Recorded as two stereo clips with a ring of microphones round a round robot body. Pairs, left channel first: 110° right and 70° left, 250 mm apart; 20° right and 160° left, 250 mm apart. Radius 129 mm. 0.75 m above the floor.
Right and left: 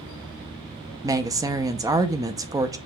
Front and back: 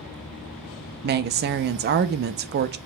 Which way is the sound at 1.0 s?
135° left.